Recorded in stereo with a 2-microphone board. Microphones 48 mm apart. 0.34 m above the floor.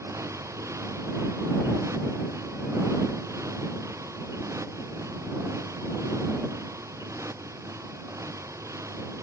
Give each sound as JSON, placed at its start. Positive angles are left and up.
{"t": 0.0, "sound": "a motorcycle", "side_deg": -85}